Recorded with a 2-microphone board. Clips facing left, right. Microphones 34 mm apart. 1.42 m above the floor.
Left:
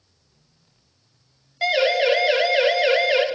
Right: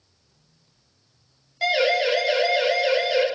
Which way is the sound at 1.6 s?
10° left (ahead or behind).